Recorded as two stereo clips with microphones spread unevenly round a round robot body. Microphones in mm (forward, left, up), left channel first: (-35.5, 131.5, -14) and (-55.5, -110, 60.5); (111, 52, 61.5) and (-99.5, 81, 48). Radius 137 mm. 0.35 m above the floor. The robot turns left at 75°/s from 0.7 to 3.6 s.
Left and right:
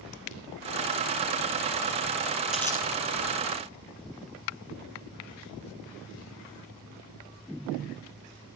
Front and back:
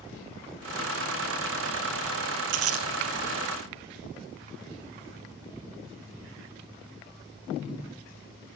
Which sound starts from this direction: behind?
Crumpling, at 2.5 s.